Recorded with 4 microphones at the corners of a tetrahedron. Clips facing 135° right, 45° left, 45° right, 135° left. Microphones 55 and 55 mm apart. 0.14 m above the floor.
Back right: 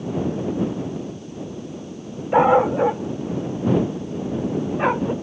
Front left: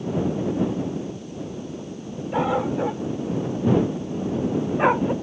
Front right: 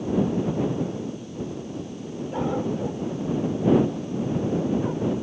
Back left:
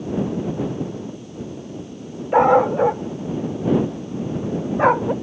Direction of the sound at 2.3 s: 170° left.